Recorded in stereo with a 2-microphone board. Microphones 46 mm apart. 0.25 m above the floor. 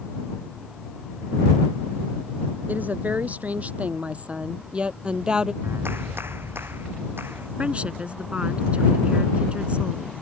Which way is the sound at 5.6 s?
70° right (ahead or behind).